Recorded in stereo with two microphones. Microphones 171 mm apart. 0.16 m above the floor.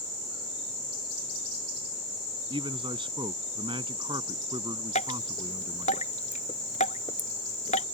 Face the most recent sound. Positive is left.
turn(degrees=45)  # may be behind; listen again after turning